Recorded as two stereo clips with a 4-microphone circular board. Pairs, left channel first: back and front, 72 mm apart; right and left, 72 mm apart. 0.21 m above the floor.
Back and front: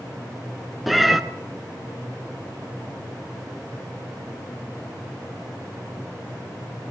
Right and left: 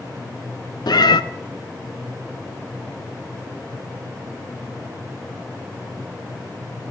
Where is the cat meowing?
90° right, 0.6 m.